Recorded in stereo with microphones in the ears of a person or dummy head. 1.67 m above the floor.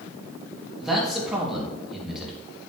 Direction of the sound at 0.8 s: Centre (ahead or behind).